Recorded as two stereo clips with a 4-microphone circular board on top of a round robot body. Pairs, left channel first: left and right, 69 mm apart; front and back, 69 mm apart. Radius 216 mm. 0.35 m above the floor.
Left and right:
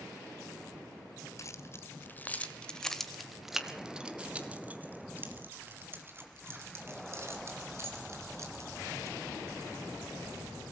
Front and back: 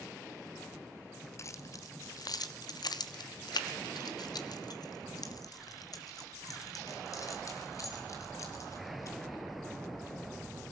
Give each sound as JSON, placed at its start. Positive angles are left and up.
{"t": 1.4, "sound": "keys jangling", "azimuth_deg": 45, "distance_m": 1.5}